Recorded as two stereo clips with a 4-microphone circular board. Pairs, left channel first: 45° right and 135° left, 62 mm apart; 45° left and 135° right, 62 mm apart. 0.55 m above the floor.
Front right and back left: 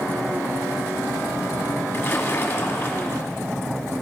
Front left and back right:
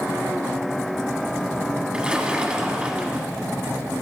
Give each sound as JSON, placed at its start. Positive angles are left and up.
{"t": 1.9, "sound": "a splash", "azimuth_deg": -75, "distance_m": 1.2}